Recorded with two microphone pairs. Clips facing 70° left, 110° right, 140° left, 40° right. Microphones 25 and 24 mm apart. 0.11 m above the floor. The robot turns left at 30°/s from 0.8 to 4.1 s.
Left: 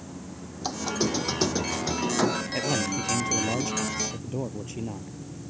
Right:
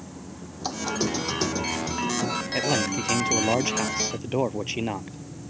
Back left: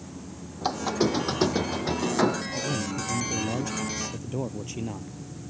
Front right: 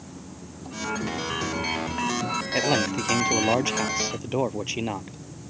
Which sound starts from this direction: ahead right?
A man speaking, at 2.5 s.